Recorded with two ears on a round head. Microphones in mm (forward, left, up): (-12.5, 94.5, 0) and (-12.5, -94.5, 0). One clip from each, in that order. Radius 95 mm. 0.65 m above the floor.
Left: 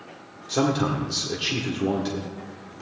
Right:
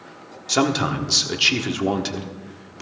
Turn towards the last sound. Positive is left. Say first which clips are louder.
# right 3 dB
turn(degrees=-55)  # may be behind; listen again after turning